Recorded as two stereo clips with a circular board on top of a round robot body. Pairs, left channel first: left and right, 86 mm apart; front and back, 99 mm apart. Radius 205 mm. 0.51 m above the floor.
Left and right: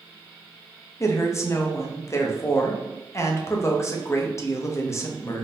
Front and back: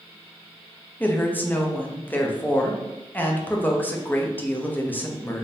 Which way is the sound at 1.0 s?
60° left.